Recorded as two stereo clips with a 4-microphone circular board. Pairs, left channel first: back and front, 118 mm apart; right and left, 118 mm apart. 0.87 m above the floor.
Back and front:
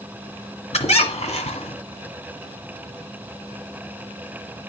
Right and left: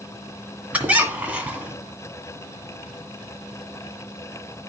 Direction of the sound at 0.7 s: 170° left.